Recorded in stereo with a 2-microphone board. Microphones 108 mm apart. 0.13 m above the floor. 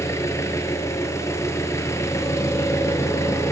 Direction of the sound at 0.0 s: 25° left (ahead or behind).